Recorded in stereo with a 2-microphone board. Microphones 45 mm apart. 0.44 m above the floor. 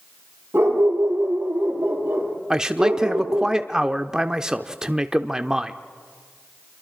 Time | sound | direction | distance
0.5 | a dog barking | 50° right (ahead or behind) | 5.5 m
2.5 | a man speaking | 10° right (ahead or behind) | 0.7 m